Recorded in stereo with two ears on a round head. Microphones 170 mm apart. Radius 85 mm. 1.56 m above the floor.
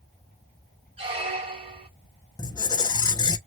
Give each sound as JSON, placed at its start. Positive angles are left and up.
{"t": 1.0, "sound": "a squeak", "side_deg": -30, "distance_m": 1.1}
{"t": 2.4, "sound": "a squeak", "side_deg": 20, "distance_m": 0.6}